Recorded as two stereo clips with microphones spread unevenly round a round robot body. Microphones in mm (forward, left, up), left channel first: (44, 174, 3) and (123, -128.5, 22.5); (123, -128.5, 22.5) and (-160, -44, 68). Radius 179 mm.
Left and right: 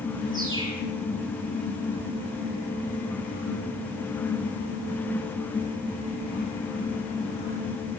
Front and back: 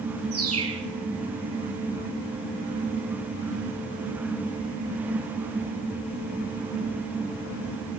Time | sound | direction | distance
0.3 | a bird | 155° right | 8.5 m